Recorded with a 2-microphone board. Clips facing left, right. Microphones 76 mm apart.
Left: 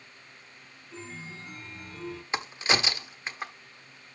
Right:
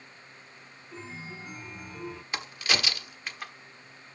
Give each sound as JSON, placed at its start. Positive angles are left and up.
{"t": 0.9, "sound": "a chime", "side_deg": -10, "distance_m": 0.6}
{"t": 2.3, "sound": "a crack", "side_deg": 25, "distance_m": 1.0}